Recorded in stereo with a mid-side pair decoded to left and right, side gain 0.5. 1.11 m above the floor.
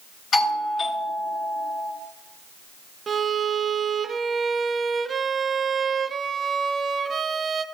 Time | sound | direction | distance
0.3 | a doorbell | 45° left | 7.5 m
3.1 | a violin | 35° right | 1.2 m